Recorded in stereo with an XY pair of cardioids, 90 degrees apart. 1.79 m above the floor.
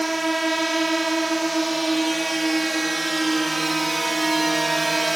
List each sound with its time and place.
0.0 s a drone: 15° right; by 5.2 s 20° right